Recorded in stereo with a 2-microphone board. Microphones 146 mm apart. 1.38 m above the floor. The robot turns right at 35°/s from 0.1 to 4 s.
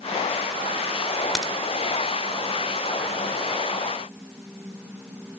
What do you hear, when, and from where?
1.4 s a crack: 5° left (ahead or behind), 2.0 m; by 1.5 s 5° right (ahead or behind), 2.0 m